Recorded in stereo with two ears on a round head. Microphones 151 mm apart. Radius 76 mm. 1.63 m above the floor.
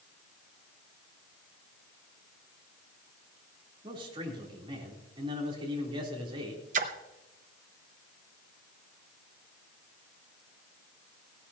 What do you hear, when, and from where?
3.8 s a man speaking: 30° right (ahead or behind), 3.5 m
6.7 s a splash: 45° right (ahead or behind), 0.9 m